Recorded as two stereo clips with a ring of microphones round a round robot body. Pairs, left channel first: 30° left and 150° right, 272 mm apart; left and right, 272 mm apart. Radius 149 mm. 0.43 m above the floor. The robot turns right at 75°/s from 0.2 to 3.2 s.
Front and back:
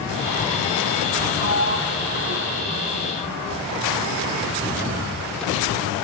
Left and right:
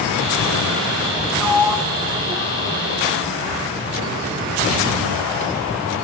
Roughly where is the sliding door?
Behind.